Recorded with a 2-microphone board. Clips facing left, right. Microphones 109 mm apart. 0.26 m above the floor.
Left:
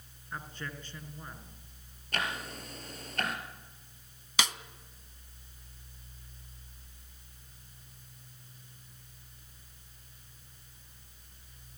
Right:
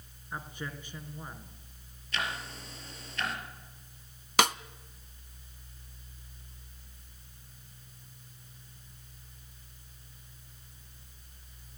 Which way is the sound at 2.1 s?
50° left (ahead or behind).